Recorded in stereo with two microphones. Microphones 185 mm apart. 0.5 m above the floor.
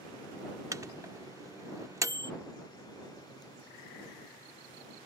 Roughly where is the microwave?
Centre.